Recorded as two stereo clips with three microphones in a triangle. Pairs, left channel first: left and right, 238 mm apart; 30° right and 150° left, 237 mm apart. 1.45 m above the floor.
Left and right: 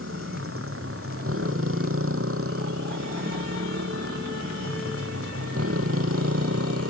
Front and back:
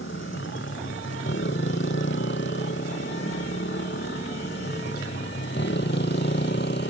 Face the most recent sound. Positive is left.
turn(degrees=-75)